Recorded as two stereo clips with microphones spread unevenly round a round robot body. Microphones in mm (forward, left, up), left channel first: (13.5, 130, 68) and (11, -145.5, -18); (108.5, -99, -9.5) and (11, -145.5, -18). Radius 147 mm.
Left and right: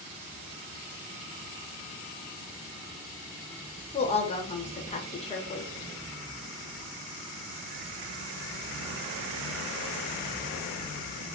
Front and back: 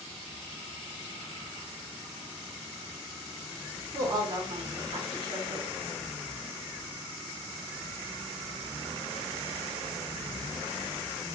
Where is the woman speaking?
170° left, 0.7 m.